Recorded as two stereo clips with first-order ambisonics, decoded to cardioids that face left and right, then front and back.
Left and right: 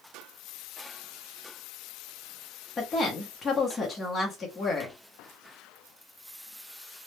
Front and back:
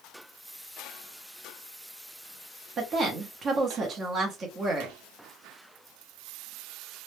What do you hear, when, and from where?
2.8 s a woman speaking: 145° left, 0.8 m